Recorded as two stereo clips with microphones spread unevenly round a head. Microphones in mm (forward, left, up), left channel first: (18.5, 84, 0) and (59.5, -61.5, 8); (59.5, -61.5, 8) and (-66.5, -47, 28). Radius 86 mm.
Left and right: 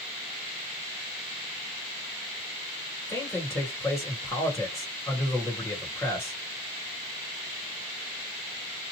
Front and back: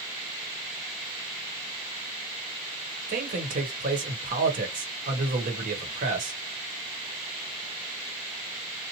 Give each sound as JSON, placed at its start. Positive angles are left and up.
{"t": 3.1, "sound": "a man speaking", "azimuth_deg": -175, "distance_m": 1.1}